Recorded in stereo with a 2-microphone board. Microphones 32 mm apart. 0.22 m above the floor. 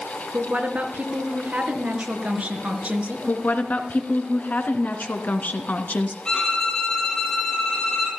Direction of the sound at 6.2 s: 10° left (ahead or behind).